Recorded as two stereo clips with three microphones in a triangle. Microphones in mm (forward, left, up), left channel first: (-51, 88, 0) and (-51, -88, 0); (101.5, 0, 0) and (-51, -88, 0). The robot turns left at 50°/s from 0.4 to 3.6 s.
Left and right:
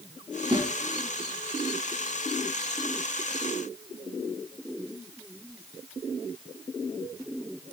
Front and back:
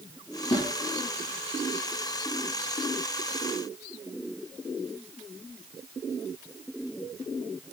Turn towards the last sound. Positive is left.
turn(degrees=175)